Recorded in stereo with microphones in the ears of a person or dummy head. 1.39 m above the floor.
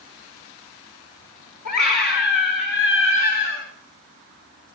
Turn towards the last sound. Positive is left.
turn(degrees=80)